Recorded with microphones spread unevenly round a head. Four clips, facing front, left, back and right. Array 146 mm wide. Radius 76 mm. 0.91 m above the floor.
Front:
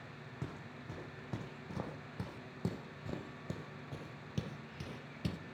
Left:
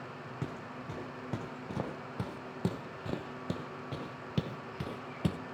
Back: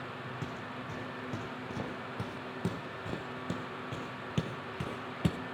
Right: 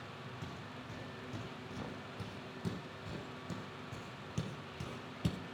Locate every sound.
0.4 s footsteps: 95° left, 3.5 m; by 5.4 s 140° left, 1.3 m